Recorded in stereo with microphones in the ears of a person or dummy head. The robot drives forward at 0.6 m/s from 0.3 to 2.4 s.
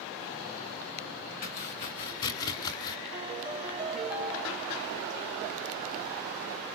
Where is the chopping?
30° left (ahead or behind), 1.2 m; by 3.0 s 25° left (ahead or behind), 1.4 m.